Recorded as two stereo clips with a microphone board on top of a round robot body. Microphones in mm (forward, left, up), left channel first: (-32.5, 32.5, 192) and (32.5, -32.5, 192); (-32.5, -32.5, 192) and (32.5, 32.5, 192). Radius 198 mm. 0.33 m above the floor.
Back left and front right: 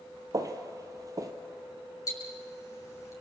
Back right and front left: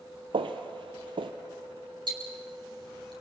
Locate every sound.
0.3 s footsteps: 10° left, 0.6 m
2.1 s ticking: 80° left, 6.5 m